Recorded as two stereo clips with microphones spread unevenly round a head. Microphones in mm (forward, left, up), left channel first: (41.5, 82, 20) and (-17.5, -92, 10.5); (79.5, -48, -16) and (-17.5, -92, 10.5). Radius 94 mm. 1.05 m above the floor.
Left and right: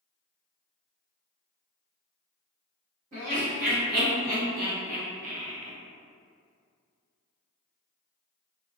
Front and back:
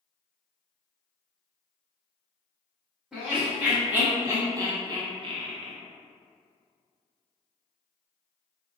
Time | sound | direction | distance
3.1 | laughter | 65° right | 1.7 m